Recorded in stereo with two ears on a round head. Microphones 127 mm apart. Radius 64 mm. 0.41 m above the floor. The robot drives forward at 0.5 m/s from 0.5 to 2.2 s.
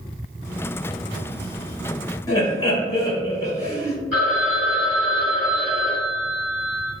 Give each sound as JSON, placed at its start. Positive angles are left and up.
{"t": 2.3, "sound": "laughter", "side_deg": 25, "distance_m": 1.4}
{"t": 4.1, "sound": "a phone ringing", "side_deg": -10, "distance_m": 1.9}